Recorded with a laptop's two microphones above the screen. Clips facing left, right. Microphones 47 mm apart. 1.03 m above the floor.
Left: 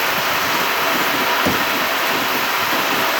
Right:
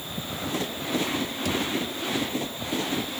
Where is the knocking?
50° left (ahead or behind).